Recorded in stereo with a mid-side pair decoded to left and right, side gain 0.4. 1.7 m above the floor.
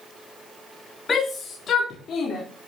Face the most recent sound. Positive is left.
turn(degrees=65)